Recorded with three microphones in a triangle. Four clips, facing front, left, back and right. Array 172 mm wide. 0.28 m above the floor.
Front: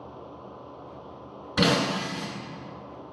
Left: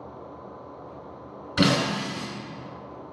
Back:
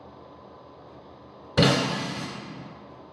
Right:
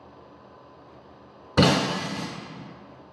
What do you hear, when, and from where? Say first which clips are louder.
1.6 s breaking glass: right 2 dB, back 2 dB; 115° right, 0.9 m